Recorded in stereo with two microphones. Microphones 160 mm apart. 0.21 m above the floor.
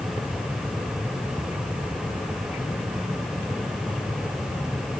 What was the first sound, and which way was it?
Only background noise.